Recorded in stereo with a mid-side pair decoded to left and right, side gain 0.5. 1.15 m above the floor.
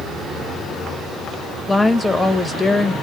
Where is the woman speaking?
10° left, 1.0 m.